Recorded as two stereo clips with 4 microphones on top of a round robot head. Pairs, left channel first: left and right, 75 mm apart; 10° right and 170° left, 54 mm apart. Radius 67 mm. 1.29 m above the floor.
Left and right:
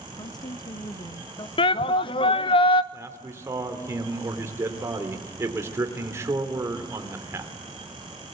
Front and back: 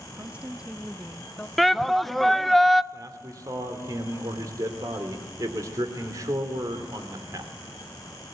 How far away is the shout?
About 1.0 m.